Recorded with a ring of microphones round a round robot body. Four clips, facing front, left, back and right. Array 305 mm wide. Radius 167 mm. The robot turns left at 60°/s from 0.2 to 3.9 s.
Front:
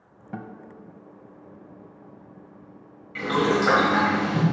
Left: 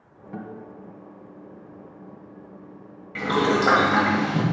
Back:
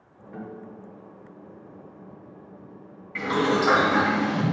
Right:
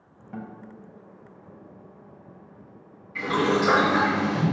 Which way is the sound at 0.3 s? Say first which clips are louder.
Left 2 dB, front 1 dB; 5° right.